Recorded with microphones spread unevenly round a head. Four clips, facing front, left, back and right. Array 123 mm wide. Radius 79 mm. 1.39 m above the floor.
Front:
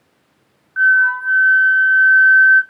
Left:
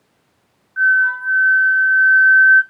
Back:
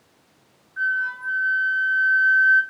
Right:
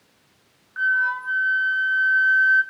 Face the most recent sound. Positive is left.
turn(degrees=-15)